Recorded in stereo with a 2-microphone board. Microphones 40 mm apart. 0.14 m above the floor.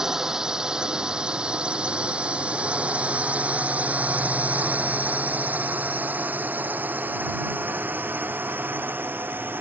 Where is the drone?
15° right (ahead or behind); by 9.6 s 65° right (ahead or behind).